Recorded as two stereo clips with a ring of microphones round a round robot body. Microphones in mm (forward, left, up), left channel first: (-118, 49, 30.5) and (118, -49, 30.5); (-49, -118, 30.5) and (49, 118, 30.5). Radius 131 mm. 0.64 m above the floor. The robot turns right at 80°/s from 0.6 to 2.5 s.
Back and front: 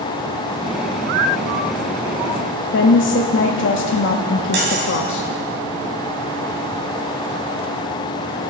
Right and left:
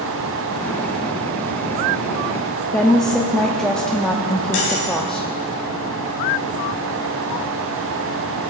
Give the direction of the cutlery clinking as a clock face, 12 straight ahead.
2 o'clock.